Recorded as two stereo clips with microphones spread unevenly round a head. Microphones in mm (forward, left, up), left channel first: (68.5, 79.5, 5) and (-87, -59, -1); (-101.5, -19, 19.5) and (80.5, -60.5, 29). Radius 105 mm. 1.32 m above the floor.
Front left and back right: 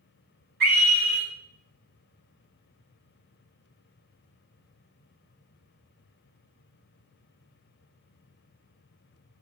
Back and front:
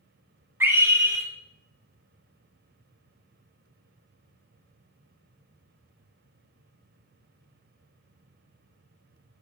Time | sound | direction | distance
0.6 | a scream | 90° right | 5 m